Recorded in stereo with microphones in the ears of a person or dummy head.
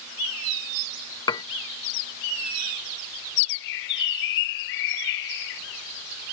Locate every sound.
1.3 s dishes clattering: 25° left (ahead or behind)
3.5 s a bird: 65° left (ahead or behind)